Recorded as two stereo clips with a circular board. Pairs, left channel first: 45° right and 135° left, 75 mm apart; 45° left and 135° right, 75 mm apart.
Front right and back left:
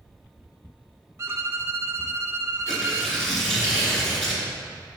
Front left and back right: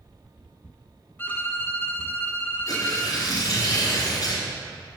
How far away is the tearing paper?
About 2.5 m.